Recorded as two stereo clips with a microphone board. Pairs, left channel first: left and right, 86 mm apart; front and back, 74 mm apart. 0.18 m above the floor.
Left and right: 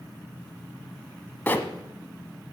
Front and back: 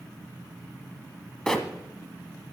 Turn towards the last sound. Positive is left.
turn(degrees=75)